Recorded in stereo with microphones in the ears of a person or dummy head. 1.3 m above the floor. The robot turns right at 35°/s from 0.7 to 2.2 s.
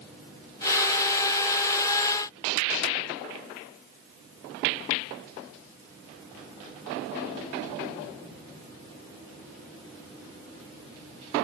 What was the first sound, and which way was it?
Only background noise.